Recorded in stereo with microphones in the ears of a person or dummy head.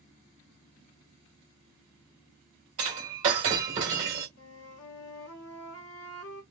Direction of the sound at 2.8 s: 30° right (ahead or behind).